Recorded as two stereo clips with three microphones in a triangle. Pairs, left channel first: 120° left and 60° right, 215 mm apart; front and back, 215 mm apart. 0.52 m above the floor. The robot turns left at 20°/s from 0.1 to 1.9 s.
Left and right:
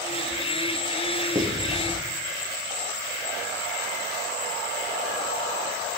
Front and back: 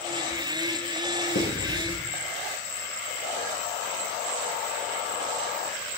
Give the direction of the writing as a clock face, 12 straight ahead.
12 o'clock.